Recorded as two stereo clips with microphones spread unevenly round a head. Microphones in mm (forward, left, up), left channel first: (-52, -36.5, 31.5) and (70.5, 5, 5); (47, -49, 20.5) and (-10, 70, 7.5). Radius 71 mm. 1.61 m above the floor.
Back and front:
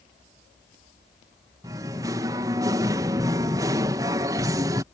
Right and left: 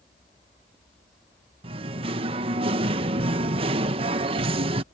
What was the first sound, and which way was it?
Singing, 90° left.